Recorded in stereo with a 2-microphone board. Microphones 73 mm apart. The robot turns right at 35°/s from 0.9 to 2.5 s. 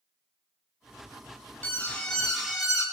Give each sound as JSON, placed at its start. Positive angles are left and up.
{"t": 1.6, "sound": "an alarm", "azimuth_deg": 155, "distance_m": 2.5}